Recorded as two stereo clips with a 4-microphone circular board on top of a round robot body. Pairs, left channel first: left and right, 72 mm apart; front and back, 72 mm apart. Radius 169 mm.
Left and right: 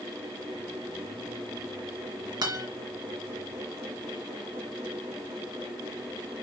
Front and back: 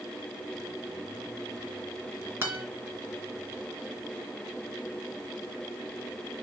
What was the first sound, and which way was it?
A guitar, 120° right.